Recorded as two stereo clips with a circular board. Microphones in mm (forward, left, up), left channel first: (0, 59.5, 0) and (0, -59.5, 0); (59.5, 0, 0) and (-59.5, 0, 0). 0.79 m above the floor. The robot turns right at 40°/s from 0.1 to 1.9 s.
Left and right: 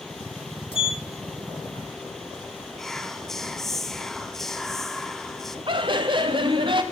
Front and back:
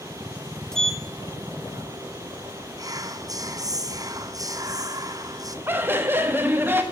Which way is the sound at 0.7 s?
85° left.